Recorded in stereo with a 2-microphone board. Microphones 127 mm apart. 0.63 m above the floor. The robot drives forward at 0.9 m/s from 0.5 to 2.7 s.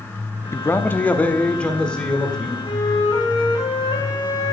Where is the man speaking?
20° left (ahead or behind), 0.6 m; by 2.5 s 5° left (ahead or behind), 2 m.